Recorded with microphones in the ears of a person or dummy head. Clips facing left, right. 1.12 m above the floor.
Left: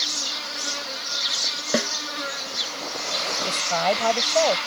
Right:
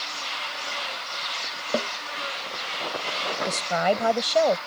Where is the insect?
45° left (ahead or behind).